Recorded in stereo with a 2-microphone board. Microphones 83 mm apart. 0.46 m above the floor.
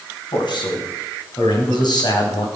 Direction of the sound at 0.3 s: 65° left (ahead or behind).